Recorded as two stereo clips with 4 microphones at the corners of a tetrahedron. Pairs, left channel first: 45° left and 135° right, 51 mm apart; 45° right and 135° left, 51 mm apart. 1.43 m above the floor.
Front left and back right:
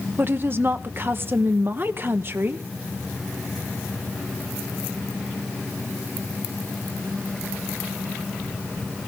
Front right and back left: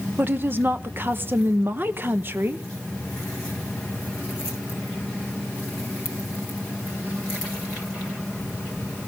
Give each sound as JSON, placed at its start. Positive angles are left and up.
{"t": 0.2, "sound": "a woman speaking", "azimuth_deg": 180, "distance_m": 0.9}